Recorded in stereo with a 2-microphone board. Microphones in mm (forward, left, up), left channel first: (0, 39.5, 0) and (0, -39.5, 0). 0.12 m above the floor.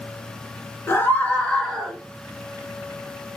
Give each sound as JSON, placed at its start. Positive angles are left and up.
{"t": 0.9, "sound": "a scream", "side_deg": 30, "distance_m": 1.8}